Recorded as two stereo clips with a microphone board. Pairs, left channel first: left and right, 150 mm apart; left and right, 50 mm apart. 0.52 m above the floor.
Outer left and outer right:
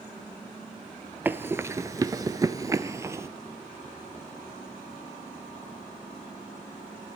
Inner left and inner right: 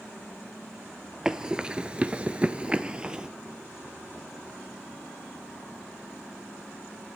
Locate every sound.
1.2 s running footsteps: 15° right (ahead or behind), 0.6 m; by 3.3 s 20° right (ahead or behind), 0.8 m